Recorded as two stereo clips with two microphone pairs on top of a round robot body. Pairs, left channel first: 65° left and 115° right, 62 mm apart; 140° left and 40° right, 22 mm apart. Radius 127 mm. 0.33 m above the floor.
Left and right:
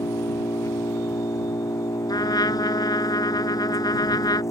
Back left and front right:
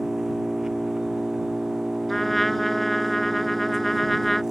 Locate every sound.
0.0 s an engine running: 30° left
2.1 s a trumpet: 60° left